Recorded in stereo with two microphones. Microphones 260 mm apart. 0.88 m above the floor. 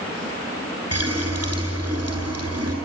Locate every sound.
0.9 s a running tap: 70° right (ahead or behind), 8 m